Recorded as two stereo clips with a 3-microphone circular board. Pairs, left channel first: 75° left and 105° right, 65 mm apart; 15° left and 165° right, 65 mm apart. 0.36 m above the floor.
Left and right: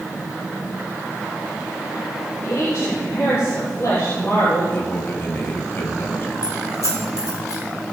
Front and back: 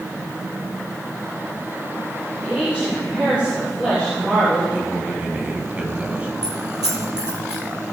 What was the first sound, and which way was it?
A woman speaking, 125° left.